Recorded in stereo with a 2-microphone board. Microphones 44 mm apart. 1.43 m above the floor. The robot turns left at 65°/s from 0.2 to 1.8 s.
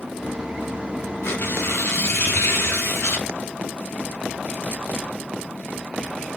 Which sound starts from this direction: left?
Tearing paper, at 1.2 s.